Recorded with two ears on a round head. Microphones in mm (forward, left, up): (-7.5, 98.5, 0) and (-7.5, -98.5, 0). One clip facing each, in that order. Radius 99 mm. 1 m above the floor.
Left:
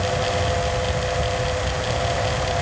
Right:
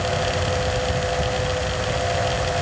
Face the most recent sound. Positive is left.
No sound to turn to.